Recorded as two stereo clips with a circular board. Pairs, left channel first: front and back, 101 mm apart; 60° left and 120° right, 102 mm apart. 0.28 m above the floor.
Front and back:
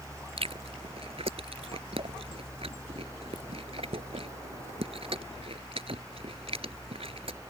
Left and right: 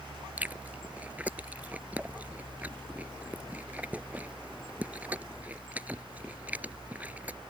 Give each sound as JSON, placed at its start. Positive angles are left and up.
{"t": 0.4, "sound": "chewing", "azimuth_deg": 165}